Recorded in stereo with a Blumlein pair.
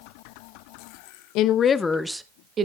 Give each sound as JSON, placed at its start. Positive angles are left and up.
{"t": 1.4, "sound": "a woman speaking", "azimuth_deg": 40, "distance_m": 0.8}